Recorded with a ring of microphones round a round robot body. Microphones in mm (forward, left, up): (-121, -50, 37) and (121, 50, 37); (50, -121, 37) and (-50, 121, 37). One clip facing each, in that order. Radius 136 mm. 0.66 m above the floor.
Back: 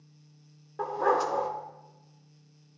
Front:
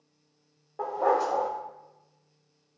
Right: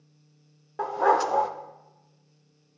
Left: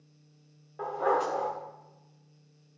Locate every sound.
0.8 s a dog barking: 95° right, 0.6 m